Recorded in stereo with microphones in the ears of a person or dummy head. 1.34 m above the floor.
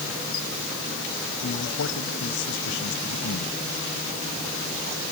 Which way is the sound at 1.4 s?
70° left (ahead or behind).